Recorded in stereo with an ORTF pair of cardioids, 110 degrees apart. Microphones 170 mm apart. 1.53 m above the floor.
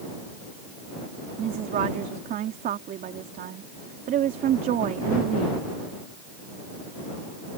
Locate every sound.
1.4 s a woman speaking: 60° right